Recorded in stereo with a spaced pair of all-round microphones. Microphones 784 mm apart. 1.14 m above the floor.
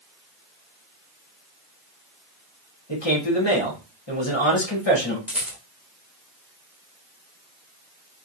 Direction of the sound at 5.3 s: Centre (ahead or behind).